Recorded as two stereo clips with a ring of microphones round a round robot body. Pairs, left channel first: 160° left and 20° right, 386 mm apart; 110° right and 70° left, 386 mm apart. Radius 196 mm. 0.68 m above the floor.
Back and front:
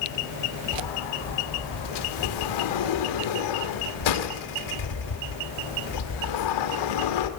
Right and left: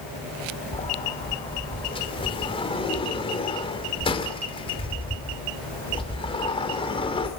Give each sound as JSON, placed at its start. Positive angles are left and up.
{"t": 0.7, "sound": "a sliding door", "azimuth_deg": 170, "distance_m": 2.5}